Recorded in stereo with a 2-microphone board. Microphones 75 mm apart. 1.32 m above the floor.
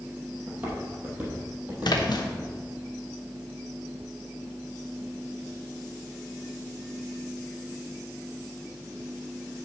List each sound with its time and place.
0.5 s footsteps: 25° right (ahead or behind), 2.5 m; by 2.5 s 15° right (ahead or behind), 3.5 m
1.8 s a splash: 75° left (ahead or behind), 1.0 m